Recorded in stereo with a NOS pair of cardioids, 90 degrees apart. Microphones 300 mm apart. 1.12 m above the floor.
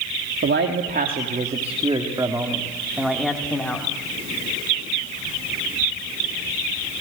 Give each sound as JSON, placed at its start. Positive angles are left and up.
{"t": 0.4, "sound": "a man speaking", "azimuth_deg": -40, "distance_m": 3.0}